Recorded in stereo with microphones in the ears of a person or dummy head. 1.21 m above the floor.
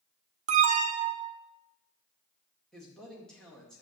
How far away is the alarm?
About 0.7 m.